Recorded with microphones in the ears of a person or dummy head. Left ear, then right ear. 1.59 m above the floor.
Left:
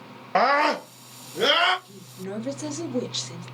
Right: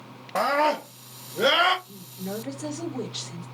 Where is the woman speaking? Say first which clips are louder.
Even; 40° left (ahead or behind), 1.6 m.